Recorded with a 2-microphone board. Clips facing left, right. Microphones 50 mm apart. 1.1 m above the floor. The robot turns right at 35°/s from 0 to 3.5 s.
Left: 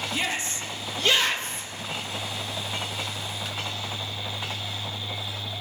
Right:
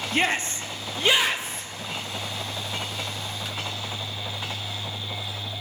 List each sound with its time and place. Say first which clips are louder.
0.1 s a shout: right 7 dB; 55° right, 0.6 m; by 1.7 s straight ahead, 0.6 m